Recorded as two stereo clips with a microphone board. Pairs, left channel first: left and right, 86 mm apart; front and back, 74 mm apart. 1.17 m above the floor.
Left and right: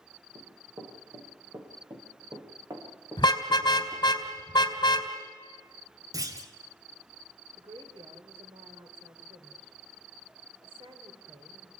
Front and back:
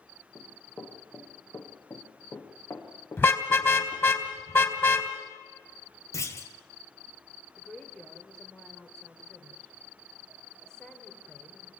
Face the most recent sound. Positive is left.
turn(degrees=-80)